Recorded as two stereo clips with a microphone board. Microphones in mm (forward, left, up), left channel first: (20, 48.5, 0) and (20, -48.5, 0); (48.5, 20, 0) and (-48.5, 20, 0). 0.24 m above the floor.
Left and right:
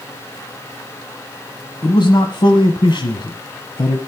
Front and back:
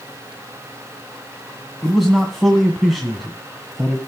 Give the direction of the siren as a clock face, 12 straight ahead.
I don't hear a siren.